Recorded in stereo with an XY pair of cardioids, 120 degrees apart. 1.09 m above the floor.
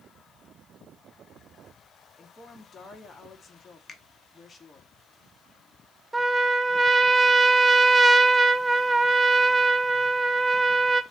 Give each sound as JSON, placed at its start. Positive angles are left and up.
{"t": 2.2, "sound": "a woman speaking", "azimuth_deg": 30, "distance_m": 2.0}
{"t": 3.9, "sound": "a finger snap", "azimuth_deg": 25, "distance_m": 1.3}
{"t": 6.1, "sound": "a trumpet", "azimuth_deg": -15, "distance_m": 0.6}